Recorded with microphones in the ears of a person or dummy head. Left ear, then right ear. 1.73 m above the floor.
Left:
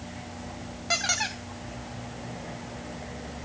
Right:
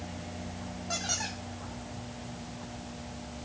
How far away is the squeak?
About 0.6 m.